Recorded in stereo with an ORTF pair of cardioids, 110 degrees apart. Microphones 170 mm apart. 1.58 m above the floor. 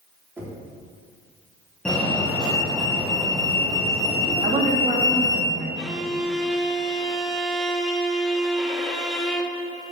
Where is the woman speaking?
50° right, 3.5 m.